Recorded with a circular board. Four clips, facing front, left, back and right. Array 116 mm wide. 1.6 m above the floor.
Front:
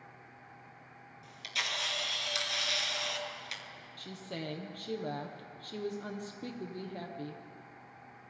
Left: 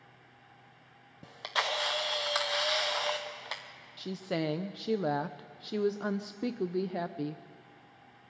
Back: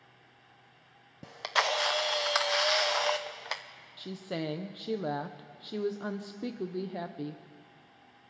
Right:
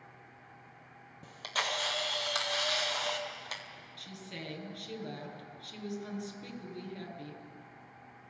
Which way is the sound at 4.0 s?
110° left.